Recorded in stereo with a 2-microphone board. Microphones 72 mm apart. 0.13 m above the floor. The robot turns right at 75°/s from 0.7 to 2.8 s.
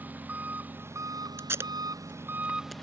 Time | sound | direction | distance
0.0 | an engine running | 155° right | ?
1.4 | tape being pulled | 40° right (ahead or behind) | ?